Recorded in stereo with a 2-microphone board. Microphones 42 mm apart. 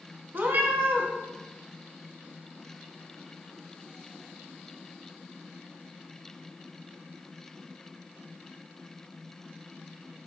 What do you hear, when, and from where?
0.3 s a cat meowing: 55° right (ahead or behind), 0.5 m